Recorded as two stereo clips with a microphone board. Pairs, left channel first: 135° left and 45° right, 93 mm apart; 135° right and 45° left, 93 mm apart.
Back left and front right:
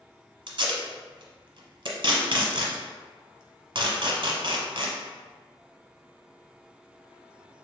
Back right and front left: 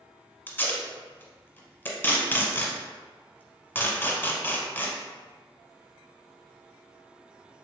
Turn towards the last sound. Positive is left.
turn(degrees=-70)